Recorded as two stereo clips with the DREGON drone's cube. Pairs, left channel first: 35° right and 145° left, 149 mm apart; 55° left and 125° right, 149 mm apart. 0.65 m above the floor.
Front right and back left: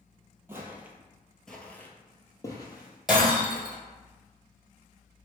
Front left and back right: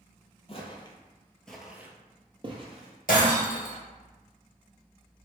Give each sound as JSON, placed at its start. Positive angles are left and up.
{"t": 0.5, "sound": "footsteps", "azimuth_deg": 80, "distance_m": 0.8}
{"t": 3.1, "sound": "breaking glass", "azimuth_deg": 55, "distance_m": 1.4}